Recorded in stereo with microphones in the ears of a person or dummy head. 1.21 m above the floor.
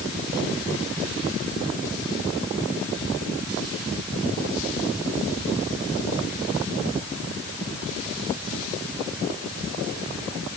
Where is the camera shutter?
No camera shutter in this recording.